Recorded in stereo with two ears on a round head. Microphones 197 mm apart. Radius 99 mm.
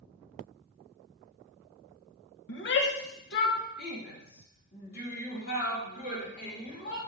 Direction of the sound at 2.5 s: 60° left (ahead or behind).